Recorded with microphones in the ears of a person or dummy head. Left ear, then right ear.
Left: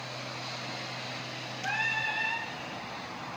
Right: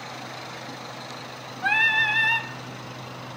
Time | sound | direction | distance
1.6 | singing | 50° right (ahead or behind) | 1.1 m